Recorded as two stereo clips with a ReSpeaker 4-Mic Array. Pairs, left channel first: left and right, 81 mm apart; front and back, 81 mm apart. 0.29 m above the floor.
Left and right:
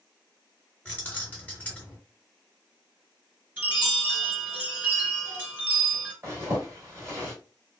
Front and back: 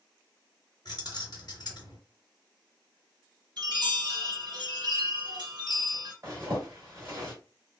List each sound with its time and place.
0.8 s keys jangling: 20° left, 1.3 m
3.6 s a chime: 160° right, 1.8 m
6.2 s a zipper: 145° right, 2 m